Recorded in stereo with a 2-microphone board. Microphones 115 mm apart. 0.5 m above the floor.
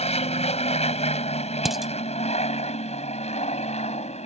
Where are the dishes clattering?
Centre (ahead or behind).